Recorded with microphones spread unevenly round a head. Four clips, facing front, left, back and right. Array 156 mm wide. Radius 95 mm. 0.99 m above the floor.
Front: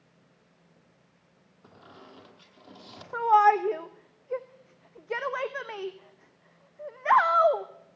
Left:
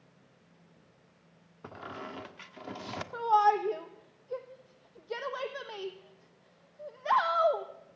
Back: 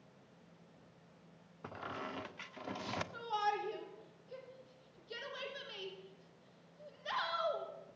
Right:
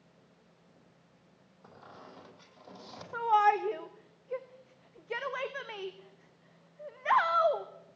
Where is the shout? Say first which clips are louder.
Left 1 dB, front 18 dB; 10° left, 0.9 m.